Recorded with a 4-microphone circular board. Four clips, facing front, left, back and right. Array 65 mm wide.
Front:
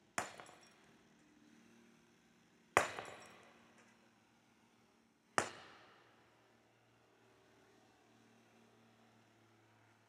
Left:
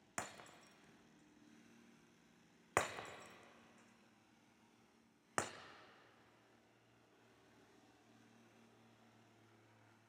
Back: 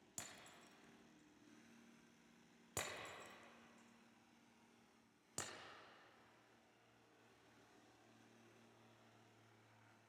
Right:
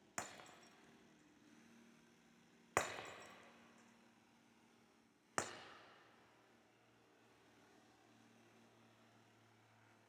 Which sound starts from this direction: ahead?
Breaking glass, at 0.2 s.